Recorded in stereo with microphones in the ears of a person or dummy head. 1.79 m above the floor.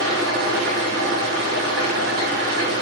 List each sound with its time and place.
0.0 s an engine running: 70° right (ahead or behind), 0.9 m